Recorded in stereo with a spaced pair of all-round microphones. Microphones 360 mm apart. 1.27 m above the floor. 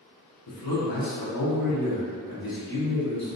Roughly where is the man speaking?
Left.